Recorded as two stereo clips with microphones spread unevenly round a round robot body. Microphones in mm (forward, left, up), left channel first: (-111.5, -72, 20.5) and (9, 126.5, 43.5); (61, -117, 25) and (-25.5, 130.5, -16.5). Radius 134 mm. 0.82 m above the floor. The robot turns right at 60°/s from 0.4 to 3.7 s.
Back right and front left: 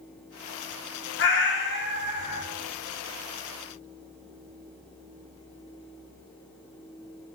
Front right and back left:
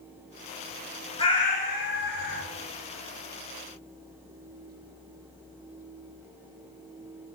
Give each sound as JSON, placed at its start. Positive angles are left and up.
{"t": 1.2, "sound": "a cat meowing", "azimuth_deg": -125, "distance_m": 1.0}